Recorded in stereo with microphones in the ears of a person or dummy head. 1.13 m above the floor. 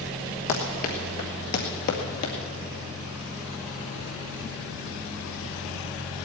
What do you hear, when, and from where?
0.5 s running footsteps: 30° left (ahead or behind), 1.4 m; by 2.3 s 50° left (ahead or behind), 2 m